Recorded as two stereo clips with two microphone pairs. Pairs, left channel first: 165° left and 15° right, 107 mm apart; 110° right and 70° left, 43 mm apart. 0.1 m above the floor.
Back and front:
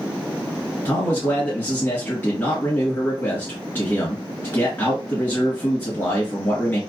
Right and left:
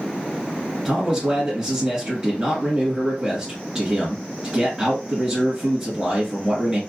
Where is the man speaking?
125° left, 1.6 m.